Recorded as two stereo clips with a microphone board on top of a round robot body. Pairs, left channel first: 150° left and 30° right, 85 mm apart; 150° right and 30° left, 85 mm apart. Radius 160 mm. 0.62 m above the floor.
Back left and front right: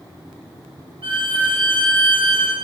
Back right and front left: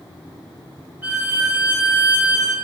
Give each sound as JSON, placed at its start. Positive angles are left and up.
{"t": 1.0, "sound": "a violin", "azimuth_deg": -40, "distance_m": 1.5}